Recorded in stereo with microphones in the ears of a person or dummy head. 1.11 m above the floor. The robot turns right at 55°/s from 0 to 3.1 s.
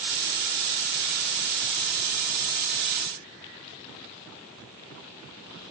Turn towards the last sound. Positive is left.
No sound to turn to.